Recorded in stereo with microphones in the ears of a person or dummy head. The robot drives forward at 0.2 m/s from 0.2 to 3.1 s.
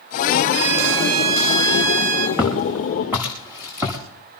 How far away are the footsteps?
About 5.5 m.